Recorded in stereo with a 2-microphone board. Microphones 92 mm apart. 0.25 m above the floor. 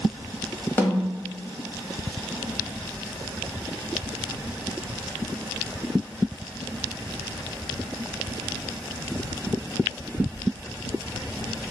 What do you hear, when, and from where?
0.8 s a snare drum: 25° left (ahead or behind), 0.9 m